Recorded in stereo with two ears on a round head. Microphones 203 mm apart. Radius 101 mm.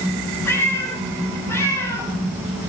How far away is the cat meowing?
About 7 m.